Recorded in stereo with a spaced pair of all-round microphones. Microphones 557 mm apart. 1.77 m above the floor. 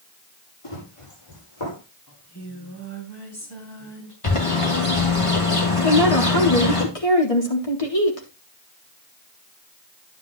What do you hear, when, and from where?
0.6 s running footsteps: 65° left (ahead or behind), 5.5 m; by 1.8 s 60° left (ahead or behind), 6 m
2.1 s singing: 45° left (ahead or behind), 4.5 m
4.2 s a bird: 65° left (ahead or behind), 3 m
5.8 s a woman speaking: 80° left, 3.5 m